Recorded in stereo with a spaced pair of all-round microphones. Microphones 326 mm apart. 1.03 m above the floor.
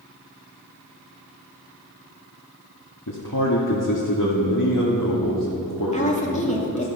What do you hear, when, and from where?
3.1 s a man speaking: 70° left (ahead or behind), 2 m
5.9 s a woman speaking: 20° left (ahead or behind), 2.5 m